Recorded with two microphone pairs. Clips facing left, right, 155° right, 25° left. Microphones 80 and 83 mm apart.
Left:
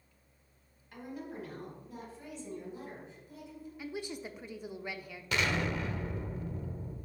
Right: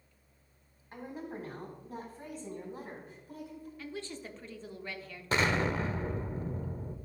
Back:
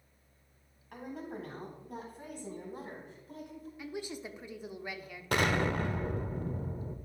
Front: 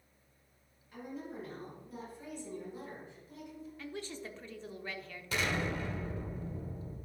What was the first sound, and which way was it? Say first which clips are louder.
A woman speaking: right 1 dB, back 2 dB; 145° right.